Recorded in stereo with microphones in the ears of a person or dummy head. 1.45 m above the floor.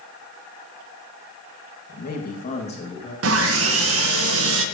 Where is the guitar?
No guitar in this recording.